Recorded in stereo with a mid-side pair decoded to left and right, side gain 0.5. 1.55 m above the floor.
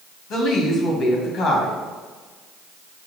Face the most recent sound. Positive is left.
turn(degrees=70)